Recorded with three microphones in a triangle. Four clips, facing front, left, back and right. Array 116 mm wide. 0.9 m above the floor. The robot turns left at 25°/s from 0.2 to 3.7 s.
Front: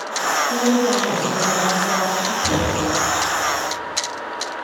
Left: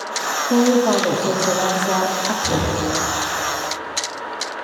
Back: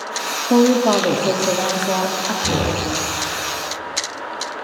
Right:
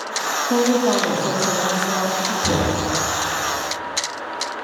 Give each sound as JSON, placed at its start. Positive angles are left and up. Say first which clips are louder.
{"t": 0.5, "sound": "a woman speaking", "louder": "left 2 dB, back 7 dB", "azimuth_deg": 175, "distance_m": 2.0}
{"t": 2.4, "sound": "knocking", "louder": "right 3 dB, back 1 dB", "azimuth_deg": -110, "distance_m": 8.0}